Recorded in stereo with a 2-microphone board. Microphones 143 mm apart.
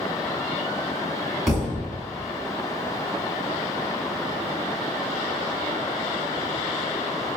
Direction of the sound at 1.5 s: Centre (ahead or behind).